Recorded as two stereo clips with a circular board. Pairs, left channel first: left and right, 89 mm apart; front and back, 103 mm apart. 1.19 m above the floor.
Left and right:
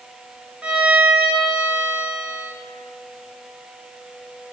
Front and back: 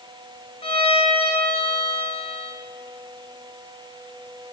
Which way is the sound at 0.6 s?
15° right.